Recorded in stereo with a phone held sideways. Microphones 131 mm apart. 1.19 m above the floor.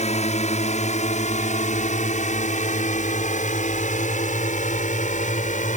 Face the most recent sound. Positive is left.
turn(degrees=70)  # may be behind; listen again after turning